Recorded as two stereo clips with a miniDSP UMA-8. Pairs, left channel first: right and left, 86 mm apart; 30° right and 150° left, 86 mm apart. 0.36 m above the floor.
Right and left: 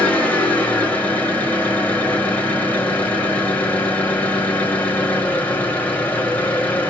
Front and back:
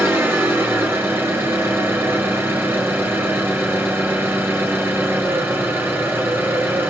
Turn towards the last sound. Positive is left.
turn(degrees=-155)